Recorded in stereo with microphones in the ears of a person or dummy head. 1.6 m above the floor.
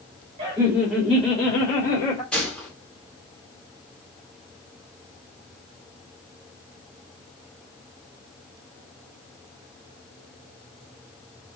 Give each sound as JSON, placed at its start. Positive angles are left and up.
{"t": 0.4, "sound": "laughter", "side_deg": -30, "distance_m": 0.8}
{"t": 2.3, "sound": "a gunshot", "side_deg": 5, "distance_m": 0.7}